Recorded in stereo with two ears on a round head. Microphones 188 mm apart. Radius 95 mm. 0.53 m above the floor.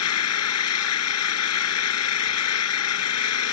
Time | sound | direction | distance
0.0 | an engine running | 90° left | ?